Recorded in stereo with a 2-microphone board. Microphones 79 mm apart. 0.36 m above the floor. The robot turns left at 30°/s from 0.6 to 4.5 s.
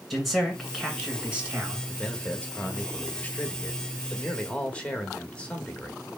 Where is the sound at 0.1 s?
Straight ahead, 1.8 m; by 1.8 s 35° right, 1.8 m.